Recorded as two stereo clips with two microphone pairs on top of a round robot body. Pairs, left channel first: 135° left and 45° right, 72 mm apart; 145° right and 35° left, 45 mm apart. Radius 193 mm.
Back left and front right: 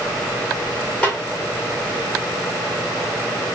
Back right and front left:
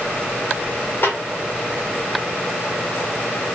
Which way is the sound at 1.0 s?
160° right.